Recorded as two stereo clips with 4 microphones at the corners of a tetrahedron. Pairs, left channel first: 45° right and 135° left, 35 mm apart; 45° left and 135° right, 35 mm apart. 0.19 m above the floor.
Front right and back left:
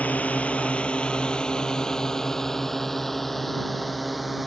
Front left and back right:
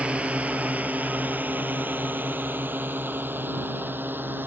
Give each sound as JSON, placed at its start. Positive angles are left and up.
{"t": 0.0, "sound": "a drone", "azimuth_deg": -85}